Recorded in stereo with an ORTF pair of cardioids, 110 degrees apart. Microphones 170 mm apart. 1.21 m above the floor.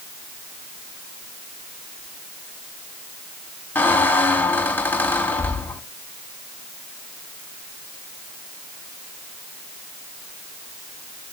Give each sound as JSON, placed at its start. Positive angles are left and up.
{"t": 3.8, "sound": "a squeak", "azimuth_deg": 10, "distance_m": 1.7}